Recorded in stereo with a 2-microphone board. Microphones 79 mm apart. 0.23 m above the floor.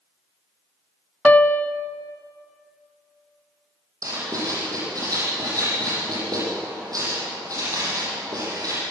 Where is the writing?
50° right (ahead or behind), 9.5 m.